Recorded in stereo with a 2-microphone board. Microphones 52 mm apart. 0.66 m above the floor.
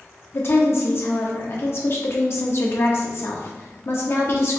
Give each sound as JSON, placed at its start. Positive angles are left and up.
{"t": 0.3, "sound": "a woman speaking", "side_deg": 50, "distance_m": 0.9}